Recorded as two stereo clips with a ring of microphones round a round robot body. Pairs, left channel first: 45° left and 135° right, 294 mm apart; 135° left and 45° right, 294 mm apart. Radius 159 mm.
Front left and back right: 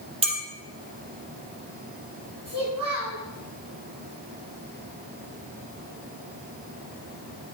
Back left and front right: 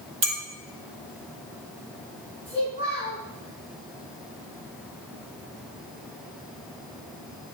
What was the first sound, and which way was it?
A clink, 65° right.